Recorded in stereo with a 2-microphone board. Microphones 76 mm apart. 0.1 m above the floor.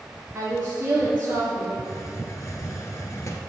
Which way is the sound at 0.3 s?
25° right (ahead or behind).